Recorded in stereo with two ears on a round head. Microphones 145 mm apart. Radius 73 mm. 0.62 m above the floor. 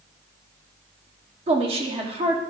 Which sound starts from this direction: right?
A woman speaking, at 1.5 s.